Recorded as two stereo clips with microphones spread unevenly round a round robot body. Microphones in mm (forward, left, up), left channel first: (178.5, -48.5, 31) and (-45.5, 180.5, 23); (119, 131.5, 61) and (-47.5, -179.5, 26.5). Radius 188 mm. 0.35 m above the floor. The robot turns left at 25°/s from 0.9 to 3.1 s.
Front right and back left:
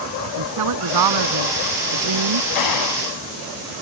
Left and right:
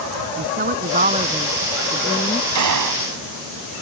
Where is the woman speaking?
175° left; by 2.5 s 135° left.